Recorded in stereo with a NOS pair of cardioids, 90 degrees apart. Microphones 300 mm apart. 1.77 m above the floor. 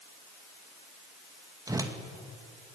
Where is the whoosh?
10° right, 2 m.